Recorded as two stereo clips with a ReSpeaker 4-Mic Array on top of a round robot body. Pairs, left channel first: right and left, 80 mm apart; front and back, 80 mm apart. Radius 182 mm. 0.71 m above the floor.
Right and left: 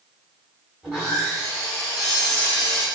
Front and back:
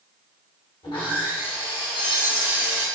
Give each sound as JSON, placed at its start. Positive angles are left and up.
{"t": 0.8, "sound": "sawing", "azimuth_deg": 15, "distance_m": 1.3}